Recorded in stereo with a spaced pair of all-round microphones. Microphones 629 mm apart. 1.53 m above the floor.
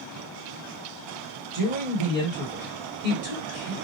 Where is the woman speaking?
75° right (ahead or behind), 1.6 m.